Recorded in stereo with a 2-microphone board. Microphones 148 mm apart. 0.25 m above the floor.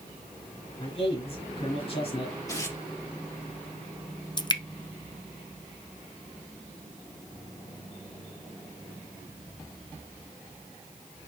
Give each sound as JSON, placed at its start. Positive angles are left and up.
{"t": 0.8, "sound": "a man speaking", "side_deg": 40, "distance_m": 3.5}
{"t": 2.5, "sound": "tearing paper", "side_deg": 25, "distance_m": 3.0}
{"t": 4.4, "sound": "dripping", "side_deg": 30, "distance_m": 0.7}